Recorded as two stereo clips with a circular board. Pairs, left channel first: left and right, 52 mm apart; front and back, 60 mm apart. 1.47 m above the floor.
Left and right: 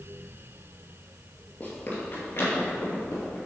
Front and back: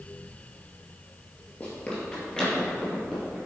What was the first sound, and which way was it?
Running footsteps, 50° left.